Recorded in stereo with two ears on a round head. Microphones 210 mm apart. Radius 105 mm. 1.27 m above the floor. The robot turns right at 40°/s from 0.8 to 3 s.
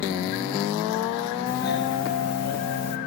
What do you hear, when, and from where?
1.5 s a doorbell: 40° left, 1.4 m; by 3.0 s 100° left, 1.4 m